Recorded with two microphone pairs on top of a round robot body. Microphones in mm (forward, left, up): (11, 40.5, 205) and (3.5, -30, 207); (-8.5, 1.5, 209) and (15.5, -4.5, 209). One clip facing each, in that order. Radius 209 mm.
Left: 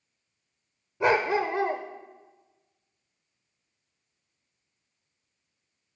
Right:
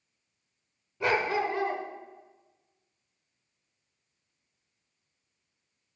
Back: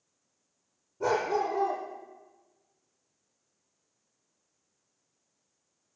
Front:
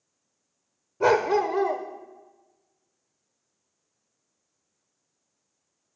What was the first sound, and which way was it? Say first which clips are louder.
A dog barking: left 4 dB, front 7 dB; 10° left.